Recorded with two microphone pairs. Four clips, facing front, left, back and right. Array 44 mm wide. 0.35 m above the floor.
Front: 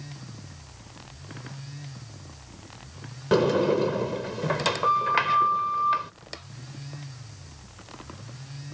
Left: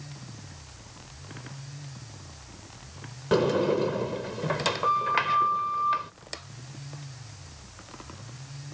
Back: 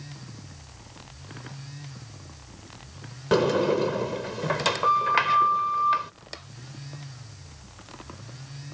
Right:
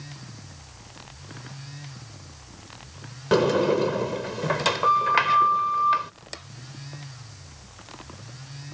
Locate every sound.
3.3 s a sliding door: 105° right